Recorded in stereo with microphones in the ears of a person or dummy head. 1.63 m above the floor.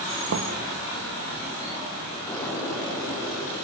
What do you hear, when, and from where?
0.3 s knocking: 70° right (ahead or behind), 1.7 m
2.3 s an explosion: 15° left (ahead or behind), 5.5 m